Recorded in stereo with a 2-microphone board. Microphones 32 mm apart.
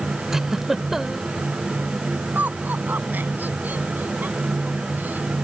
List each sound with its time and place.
0.3 s a giggle: 15° right (ahead or behind)
2.4 s laughter: 85° right